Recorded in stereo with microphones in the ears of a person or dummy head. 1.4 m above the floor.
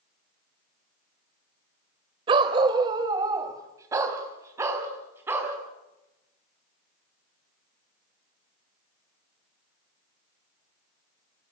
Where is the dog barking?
30° right (ahead or behind), 1.7 m; by 5.5 s 15° right (ahead or behind), 3.5 m.